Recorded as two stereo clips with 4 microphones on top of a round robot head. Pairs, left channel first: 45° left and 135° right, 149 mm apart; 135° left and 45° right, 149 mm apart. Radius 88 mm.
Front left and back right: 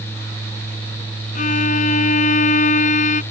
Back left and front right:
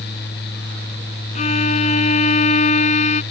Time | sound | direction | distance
1.4 | a violin | 90° left | ?